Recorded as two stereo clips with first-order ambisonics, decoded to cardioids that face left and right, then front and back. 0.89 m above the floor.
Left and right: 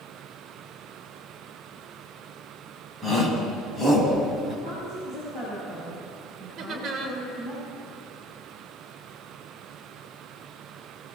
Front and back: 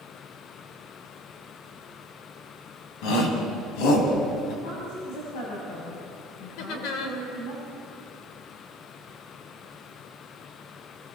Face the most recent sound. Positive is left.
turn(degrees=-30)